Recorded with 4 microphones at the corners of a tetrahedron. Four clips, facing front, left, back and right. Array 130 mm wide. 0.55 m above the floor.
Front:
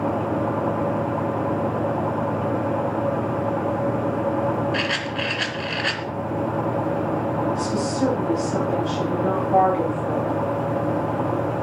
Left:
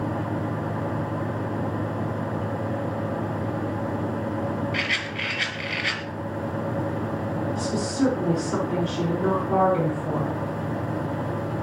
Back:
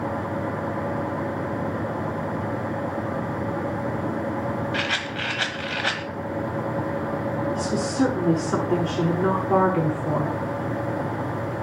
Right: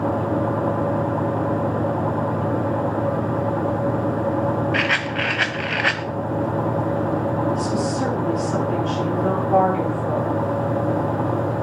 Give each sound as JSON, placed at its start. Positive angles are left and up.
{"t": 4.7, "sound": "a rattle", "azimuth_deg": -105, "distance_m": 1.3}
{"t": 7.5, "sound": "a woman speaking", "azimuth_deg": 170, "distance_m": 7.5}